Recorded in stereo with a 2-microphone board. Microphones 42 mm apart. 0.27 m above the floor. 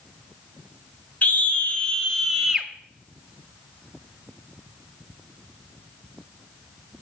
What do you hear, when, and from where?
1.2 s a scream: 40° left (ahead or behind), 1.2 m; by 2.7 s 10° right (ahead or behind), 1.0 m